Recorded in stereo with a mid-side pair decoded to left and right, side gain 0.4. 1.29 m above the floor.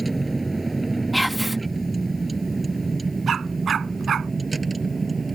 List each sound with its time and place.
0.0 s a vehicle: 25° right; by 5.4 s 40° right
1.1 s whispering: 10° right
3.3 s a dog barking: 60° right